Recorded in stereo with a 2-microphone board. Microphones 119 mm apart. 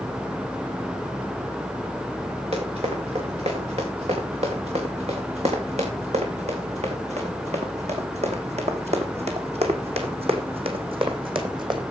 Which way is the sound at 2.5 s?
60° right (ahead or behind).